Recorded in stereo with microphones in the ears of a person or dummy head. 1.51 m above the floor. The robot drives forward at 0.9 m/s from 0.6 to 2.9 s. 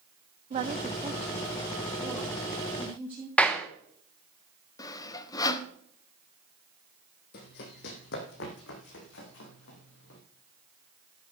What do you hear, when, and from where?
0.5 s a woman speaking: 35° right (ahead or behind), 0.8 m; by 3.3 s 10° right (ahead or behind), 3 m
3.4 s a clap: 5° left (ahead or behind), 1.2 m
4.8 s sawing: 20° left (ahead or behind), 1.1 m
7.3 s running footsteps: 50° left (ahead or behind), 2 m; by 10.2 s 75° left (ahead or behind), 6.5 m